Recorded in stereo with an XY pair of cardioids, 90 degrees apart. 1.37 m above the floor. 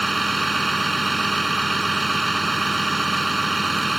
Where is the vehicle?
15° right.